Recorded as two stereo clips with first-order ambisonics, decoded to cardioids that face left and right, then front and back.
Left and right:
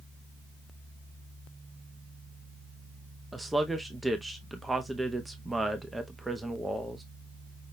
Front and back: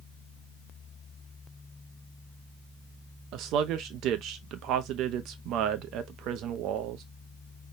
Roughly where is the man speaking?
Behind.